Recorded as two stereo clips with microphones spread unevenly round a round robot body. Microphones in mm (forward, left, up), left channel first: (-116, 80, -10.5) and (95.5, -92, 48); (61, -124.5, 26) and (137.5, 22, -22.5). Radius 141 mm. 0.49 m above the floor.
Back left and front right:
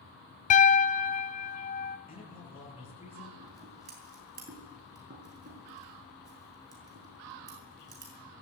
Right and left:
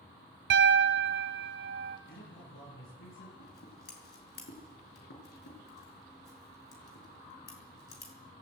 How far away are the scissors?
About 6 m.